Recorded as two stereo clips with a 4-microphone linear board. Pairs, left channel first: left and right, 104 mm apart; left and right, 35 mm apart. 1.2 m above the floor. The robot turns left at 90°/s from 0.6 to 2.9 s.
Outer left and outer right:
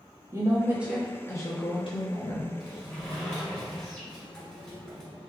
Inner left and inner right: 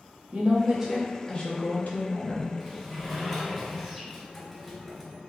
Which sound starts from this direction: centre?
A sliding door, at 2.6 s.